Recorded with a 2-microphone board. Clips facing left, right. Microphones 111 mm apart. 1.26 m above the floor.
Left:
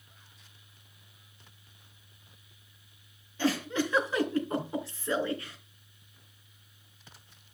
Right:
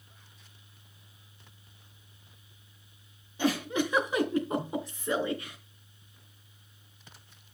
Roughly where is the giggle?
Centre.